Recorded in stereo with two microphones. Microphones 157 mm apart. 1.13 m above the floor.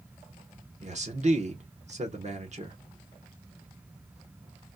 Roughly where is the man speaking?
Right.